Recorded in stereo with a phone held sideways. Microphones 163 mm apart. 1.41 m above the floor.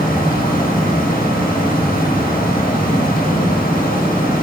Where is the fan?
65° left (ahead or behind), 1.4 m.